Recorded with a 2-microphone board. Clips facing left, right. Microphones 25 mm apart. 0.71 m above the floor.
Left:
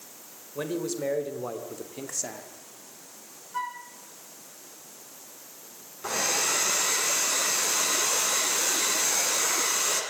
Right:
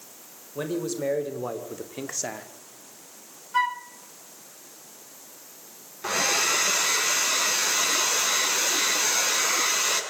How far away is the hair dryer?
About 6 m.